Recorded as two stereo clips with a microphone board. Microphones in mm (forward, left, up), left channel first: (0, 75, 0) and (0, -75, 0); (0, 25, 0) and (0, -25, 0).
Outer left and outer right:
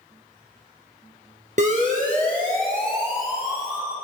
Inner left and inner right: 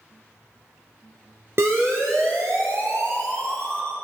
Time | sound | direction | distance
1.6 | a siren | 55° right (ahead or behind) | 3 m